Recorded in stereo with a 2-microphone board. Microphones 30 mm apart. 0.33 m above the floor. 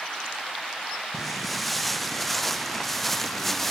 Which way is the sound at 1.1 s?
5° left (ahead or behind).